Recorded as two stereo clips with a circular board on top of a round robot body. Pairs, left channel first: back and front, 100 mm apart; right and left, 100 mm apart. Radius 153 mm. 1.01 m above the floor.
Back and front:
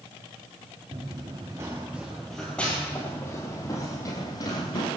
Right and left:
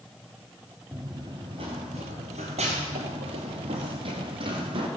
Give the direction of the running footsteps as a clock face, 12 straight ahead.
11 o'clock.